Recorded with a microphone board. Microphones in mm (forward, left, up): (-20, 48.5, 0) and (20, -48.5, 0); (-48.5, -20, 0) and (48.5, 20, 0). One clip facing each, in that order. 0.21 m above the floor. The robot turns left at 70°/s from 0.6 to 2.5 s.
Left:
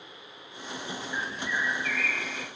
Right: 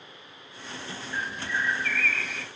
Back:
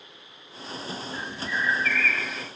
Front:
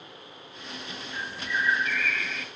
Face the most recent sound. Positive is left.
turn(degrees=-90)